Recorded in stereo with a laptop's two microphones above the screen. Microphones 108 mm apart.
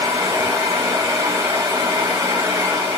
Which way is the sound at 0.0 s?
30° right (ahead or behind).